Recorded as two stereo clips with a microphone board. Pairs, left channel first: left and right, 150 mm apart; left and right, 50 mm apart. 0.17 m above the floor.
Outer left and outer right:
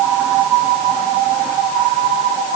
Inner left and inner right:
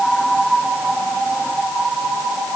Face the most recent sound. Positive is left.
No sound to turn to.